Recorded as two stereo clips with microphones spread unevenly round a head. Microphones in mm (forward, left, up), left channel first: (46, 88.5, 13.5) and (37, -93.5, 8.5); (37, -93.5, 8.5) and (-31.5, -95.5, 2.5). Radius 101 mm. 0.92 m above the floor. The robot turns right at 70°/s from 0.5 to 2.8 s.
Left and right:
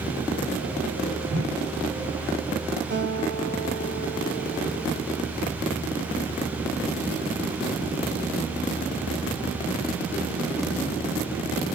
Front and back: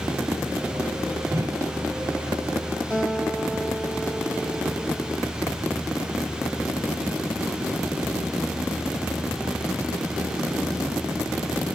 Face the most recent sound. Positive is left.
turn(degrees=-70)